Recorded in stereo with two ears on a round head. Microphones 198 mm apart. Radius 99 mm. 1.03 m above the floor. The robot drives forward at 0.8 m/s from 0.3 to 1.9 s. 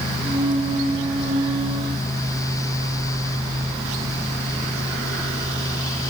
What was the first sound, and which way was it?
Only background noise.